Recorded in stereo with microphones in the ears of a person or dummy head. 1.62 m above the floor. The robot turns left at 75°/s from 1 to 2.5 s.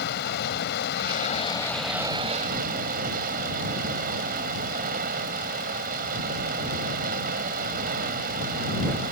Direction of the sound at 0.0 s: 70° left.